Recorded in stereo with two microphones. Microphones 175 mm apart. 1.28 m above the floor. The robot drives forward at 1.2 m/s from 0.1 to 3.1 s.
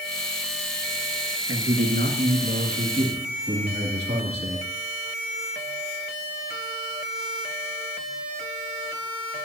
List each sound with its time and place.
1.5 s a man speaking: 85° right, 1.7 m; by 4.7 s 40° right (ahead or behind), 2.5 m